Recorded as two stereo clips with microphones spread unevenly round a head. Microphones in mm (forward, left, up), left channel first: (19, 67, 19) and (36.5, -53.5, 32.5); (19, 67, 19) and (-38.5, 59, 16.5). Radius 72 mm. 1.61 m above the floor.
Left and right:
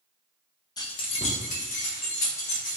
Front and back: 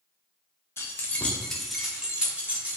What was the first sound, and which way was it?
Keys jangling, 40° left.